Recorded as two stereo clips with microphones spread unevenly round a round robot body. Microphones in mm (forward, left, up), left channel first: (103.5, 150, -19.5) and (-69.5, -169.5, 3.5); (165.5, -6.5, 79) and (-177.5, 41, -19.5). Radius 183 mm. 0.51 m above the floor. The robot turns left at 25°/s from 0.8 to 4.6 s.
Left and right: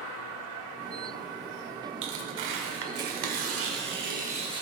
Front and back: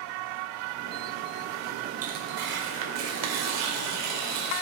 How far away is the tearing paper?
About 1.6 m.